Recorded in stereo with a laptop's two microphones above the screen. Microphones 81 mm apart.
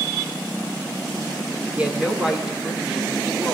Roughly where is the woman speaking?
Centre.